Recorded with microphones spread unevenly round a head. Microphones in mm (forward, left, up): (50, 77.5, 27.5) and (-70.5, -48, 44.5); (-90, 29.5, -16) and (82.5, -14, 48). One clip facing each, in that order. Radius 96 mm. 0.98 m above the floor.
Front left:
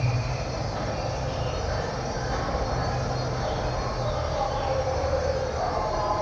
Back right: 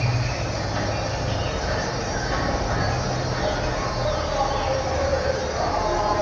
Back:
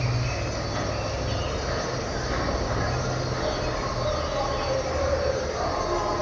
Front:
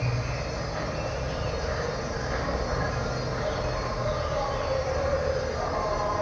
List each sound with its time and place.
0.0 s an insect: 150° right, 0.8 m